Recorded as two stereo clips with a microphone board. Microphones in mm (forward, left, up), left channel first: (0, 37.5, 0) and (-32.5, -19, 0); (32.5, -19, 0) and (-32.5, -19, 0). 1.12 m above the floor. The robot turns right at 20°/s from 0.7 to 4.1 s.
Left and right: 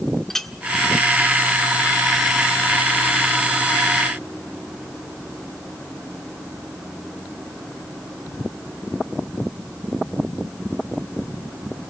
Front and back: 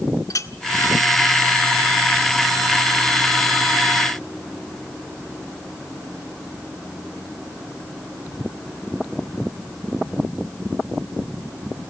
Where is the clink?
25° right, 1.6 m.